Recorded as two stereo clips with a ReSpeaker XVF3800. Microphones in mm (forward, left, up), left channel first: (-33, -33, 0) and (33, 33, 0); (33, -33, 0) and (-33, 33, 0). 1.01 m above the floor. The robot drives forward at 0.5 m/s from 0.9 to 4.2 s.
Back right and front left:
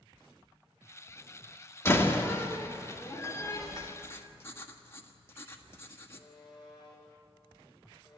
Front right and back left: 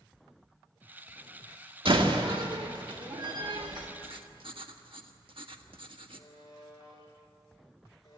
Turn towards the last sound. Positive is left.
turn(degrees=-95)